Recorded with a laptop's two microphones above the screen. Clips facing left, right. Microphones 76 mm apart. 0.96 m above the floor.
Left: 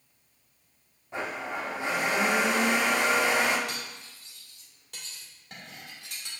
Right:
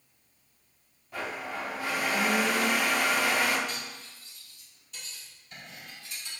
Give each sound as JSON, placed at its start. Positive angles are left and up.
{"t": 1.1, "sound": "a blender", "side_deg": 25, "distance_m": 0.6}
{"t": 3.7, "sound": "cutlery clinking", "side_deg": 65, "distance_m": 1.6}